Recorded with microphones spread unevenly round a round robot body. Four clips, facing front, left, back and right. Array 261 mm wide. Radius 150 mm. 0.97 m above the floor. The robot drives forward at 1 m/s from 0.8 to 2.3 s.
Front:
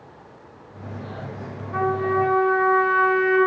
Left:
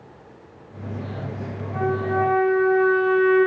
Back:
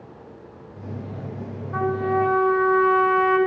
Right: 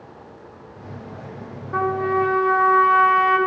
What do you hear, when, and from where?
1.7 s a trumpet: 75° right, 1.1 m; by 3.4 s 105° right, 1.1 m